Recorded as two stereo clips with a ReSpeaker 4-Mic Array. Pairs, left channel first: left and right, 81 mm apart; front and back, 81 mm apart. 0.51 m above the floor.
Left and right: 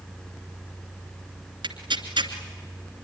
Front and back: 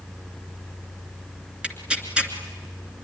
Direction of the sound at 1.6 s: 105° right.